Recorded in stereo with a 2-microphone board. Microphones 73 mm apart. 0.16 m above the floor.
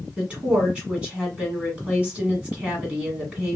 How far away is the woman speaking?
About 1.3 m.